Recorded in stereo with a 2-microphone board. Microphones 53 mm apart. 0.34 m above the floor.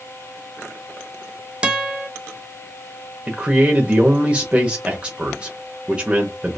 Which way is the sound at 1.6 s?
20° right (ahead or behind).